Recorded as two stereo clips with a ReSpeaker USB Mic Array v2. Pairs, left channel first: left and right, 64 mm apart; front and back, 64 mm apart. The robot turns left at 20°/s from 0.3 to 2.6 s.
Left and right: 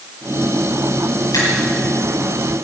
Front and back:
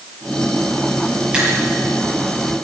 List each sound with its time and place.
1.3 s a finger snap: 100° left, 7.5 m